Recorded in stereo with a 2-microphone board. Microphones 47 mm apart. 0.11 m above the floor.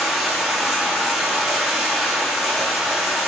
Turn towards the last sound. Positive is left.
turn(degrees=0)  # may be behind; listen again after turning